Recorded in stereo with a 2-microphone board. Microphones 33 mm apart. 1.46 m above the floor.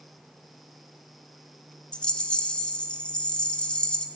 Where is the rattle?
35° left (ahead or behind), 1.8 m.